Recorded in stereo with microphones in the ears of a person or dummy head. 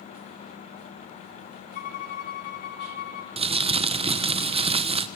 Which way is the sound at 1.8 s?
50° left (ahead or behind).